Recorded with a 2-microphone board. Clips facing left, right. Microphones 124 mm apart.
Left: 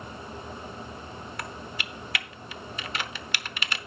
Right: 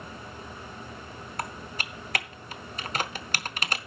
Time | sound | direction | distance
1.4 | typing on a keyboard | 40° right (ahead or behind) | 0.7 m